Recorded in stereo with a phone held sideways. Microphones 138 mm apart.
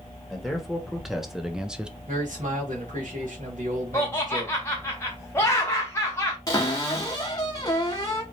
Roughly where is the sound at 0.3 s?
Centre.